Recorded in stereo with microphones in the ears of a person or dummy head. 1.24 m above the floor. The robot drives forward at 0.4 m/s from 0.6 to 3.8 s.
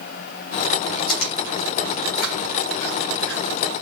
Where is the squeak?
I don't hear a squeak.